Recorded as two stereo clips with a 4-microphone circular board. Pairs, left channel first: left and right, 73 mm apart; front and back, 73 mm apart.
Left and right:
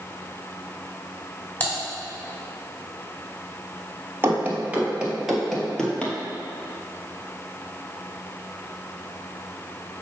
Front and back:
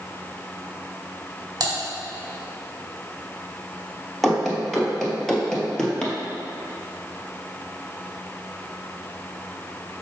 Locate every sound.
1.6 s typing on a keyboard: 155° left, 3 m
4.2 s running footsteps: 95° right, 1.7 m; by 6.2 s 55° left, 1.6 m